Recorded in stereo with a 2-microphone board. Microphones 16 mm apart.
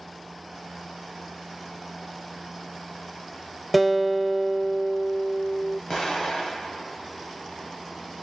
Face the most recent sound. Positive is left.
turn(degrees=40)  # may be behind; listen again after turning